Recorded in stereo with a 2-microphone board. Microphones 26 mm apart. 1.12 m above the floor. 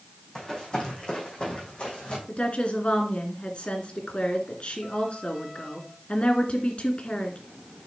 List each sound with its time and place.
0.3 s running footsteps: 25° left (ahead or behind), 3.5 m; by 2.2 s 50° left (ahead or behind), 3.5 m
2.3 s a woman speaking: 50° left (ahead or behind), 2.5 m